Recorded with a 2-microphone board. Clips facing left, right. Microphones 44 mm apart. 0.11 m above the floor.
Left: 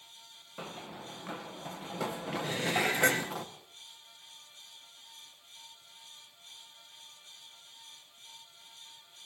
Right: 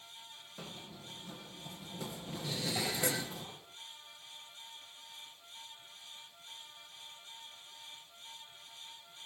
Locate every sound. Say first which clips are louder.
0.6 s running footsteps: left 7 dB; 30° left (ahead or behind), 1.0 m; by 3.4 s 75° left (ahead or behind), 4.5 m
2.4 s dishes clattering: left 6 dB; 50° left (ahead or behind), 1.2 m